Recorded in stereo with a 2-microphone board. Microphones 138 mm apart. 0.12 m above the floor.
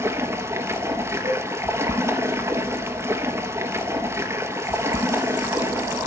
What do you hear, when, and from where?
0.0 s running water: 20° right (ahead or behind), 1.2 m
1.2 s a cowbell: 40° right (ahead or behind), 6.5 m